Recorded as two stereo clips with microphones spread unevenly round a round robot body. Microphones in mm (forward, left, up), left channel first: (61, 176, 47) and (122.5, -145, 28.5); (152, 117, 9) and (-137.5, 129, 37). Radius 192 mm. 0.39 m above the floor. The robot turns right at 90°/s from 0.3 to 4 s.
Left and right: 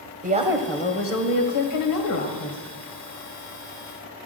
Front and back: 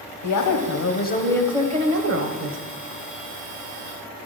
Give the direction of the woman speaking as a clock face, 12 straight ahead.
1 o'clock.